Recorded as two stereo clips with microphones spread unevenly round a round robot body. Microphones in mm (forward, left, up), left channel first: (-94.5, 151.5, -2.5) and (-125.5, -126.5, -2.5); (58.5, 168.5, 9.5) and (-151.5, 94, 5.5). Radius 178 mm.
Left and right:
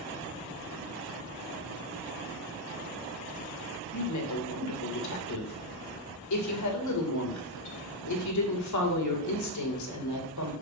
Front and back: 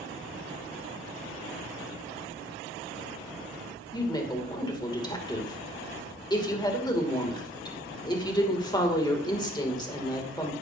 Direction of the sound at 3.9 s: 90° left.